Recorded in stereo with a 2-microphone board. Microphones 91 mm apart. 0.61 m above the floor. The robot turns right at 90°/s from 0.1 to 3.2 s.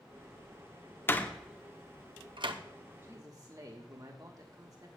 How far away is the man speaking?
About 1.5 m.